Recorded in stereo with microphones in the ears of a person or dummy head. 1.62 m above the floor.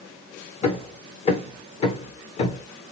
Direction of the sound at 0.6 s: 35° left (ahead or behind).